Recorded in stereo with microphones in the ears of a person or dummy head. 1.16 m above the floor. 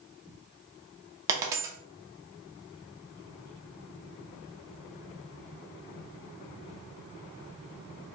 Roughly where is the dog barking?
No dog barking in this recording.